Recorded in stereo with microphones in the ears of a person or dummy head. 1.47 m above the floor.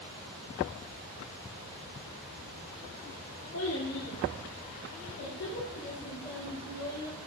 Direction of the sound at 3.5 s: 60° left (ahead or behind).